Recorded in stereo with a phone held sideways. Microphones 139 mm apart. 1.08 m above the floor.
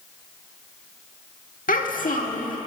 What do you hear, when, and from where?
1.7 s a child speaking: 75° left (ahead or behind), 1.4 m